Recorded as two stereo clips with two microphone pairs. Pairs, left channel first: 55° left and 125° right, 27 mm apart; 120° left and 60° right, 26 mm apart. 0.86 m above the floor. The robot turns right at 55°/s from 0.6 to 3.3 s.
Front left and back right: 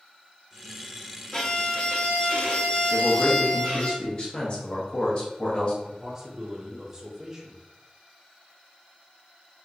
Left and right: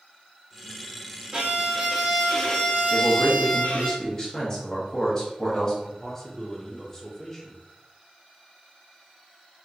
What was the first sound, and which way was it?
A violin, 15° right.